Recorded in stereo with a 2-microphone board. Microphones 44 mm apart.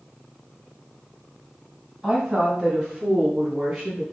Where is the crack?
I don't hear a crack.